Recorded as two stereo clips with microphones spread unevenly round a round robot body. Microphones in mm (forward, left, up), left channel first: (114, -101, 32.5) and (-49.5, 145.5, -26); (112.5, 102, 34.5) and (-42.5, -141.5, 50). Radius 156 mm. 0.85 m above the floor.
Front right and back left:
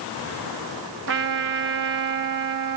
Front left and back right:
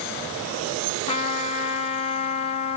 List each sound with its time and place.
1.1 s a trumpet: 115° left, 1.4 m